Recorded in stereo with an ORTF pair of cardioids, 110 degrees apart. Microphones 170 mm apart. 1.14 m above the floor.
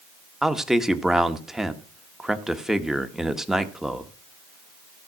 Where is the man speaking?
5° right, 1.3 m.